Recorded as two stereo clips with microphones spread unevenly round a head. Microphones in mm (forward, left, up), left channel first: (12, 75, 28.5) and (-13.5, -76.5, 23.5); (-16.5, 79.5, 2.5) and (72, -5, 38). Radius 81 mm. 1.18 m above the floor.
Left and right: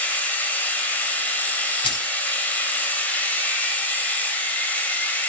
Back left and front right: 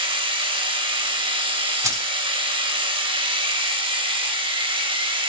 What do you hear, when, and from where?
0.0 s a machine running: straight ahead, 3.5 m
1.8 s keys jangling: 20° left, 5 m